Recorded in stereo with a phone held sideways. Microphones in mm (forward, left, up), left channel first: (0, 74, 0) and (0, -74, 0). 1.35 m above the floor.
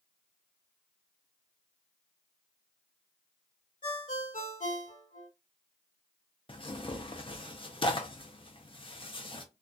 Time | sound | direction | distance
3.8 | a ringtone | 75° left (ahead or behind) | 1.0 m
6.5 | tearing paper | 40° left (ahead or behind) | 0.5 m